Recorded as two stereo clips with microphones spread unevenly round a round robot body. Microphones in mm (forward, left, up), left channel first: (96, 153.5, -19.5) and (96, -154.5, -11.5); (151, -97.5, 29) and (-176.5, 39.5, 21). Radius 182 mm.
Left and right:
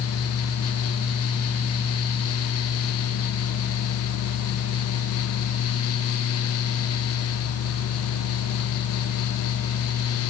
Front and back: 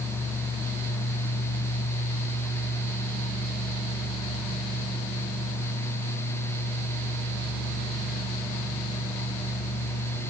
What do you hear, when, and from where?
Only background noise.